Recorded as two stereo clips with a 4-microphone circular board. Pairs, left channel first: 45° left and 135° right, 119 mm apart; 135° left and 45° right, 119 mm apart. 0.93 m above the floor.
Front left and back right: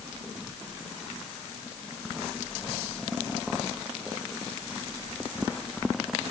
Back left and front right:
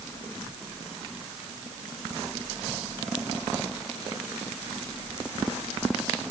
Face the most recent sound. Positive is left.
No sound to turn to.